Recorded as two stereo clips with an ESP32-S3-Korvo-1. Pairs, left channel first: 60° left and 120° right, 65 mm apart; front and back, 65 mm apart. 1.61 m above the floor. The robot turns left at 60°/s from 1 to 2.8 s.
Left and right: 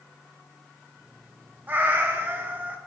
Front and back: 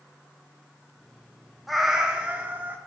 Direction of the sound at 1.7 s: 90° right.